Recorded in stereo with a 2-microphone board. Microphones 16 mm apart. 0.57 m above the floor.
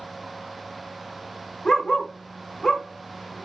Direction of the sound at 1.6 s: 45° left (ahead or behind).